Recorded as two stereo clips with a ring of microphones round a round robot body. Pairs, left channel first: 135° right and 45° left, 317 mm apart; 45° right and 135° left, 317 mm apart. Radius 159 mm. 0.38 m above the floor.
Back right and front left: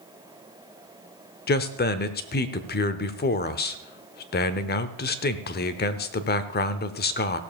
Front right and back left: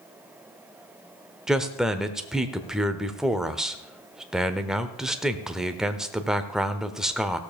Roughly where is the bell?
I don't hear a bell.